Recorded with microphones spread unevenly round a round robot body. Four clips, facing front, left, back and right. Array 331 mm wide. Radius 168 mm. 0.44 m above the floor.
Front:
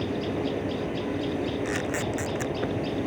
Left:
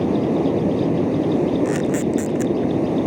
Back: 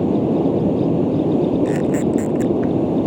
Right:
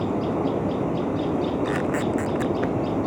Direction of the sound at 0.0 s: 155° left.